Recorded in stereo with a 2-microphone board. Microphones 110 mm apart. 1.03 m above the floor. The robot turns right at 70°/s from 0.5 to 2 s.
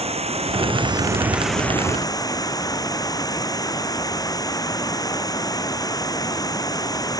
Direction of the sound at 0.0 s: 70° right.